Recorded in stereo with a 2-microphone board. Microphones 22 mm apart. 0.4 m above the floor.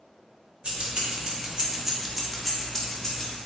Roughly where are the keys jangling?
Right.